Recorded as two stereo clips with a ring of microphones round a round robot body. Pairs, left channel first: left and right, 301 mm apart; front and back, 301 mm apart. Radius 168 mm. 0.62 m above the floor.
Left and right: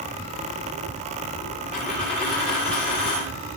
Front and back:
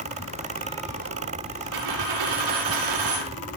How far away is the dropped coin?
About 6.5 m.